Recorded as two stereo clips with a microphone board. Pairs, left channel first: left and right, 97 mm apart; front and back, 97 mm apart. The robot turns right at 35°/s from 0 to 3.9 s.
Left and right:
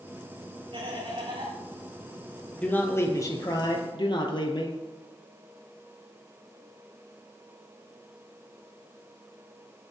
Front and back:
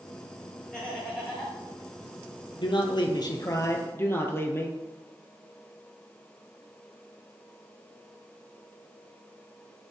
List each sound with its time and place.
0.7 s laughter: 85° right, 6 m; by 1.6 s 55° right, 6 m
2.6 s a man speaking: 15° left, 2 m; by 4.8 s 60° left, 2 m